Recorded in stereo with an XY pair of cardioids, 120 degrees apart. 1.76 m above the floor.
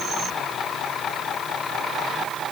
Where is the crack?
I don't hear a crack.